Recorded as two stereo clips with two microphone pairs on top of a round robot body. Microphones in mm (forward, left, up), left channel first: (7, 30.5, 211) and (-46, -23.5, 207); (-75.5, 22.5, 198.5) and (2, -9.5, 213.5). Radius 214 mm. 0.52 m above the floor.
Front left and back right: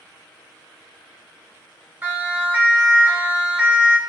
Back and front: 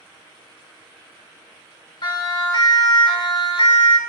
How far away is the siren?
About 5.5 m.